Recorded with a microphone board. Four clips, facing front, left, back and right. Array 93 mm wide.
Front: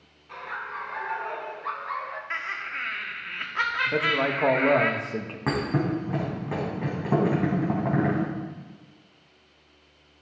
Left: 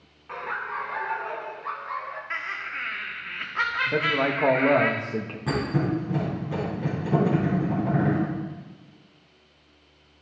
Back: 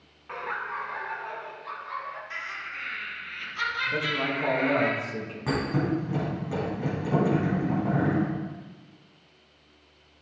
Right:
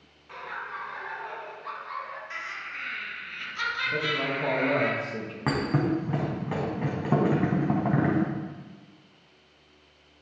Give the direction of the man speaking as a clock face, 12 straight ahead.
10 o'clock.